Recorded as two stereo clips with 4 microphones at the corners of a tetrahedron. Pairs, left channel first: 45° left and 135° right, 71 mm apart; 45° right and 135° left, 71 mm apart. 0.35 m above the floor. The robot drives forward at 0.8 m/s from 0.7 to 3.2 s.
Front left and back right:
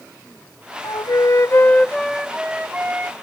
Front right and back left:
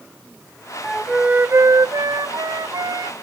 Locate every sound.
0.8 s a flute: 45° left; by 3.1 s 160° left